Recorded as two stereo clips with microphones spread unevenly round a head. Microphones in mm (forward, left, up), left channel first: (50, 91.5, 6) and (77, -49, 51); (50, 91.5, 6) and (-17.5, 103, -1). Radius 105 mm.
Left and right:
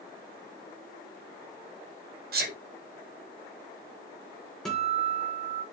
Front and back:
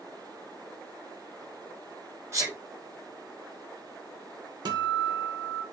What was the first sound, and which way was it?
A sneeze, 115° right.